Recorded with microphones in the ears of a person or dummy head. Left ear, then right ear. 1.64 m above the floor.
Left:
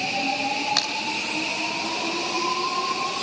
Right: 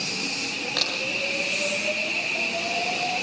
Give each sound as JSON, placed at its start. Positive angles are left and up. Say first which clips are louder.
{"t": 0.8, "sound": "a crack", "louder": "right 2 dB", "side_deg": 40, "distance_m": 4.0}